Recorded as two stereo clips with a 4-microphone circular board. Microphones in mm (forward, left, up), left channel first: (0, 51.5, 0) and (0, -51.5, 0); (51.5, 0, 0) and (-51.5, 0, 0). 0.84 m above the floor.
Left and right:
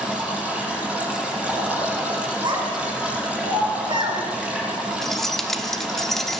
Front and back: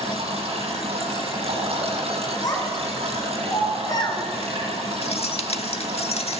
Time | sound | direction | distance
0.0 | running water | 165° right | 8.5 m
2.4 | a child speaking | 50° right | 7.5 m
5.0 | keys jangling | 5° left | 1.3 m